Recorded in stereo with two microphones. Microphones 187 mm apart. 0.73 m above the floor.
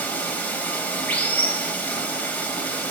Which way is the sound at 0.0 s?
10° left (ahead or behind).